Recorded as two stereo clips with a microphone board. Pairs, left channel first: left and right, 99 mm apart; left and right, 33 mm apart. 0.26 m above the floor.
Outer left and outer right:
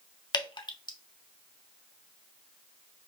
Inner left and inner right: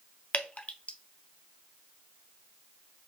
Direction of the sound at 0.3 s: 50° left (ahead or behind).